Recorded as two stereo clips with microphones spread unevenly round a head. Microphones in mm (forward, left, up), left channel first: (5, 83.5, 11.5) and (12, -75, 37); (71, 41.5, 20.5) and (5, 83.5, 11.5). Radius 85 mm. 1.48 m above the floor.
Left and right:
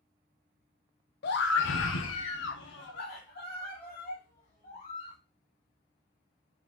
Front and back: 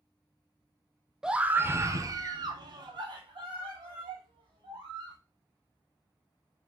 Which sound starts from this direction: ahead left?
A scream, at 1.2 s.